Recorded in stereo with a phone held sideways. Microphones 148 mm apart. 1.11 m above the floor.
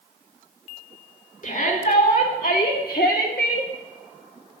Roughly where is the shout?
Left.